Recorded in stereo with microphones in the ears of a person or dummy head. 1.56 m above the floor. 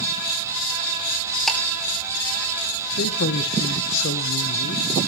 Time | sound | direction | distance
1.5 | ticking | centre (ahead or behind) | 4.5 m
3.0 | a man speaking | 65° left (ahead or behind) | 1.1 m